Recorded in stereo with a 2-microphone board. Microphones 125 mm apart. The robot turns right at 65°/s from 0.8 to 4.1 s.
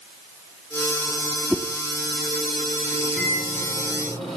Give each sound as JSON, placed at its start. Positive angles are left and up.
{"t": 1.5, "sound": "a whoosh", "side_deg": 0, "distance_m": 1.0}
{"t": 3.2, "sound": "a microwave", "azimuth_deg": -55, "distance_m": 7.0}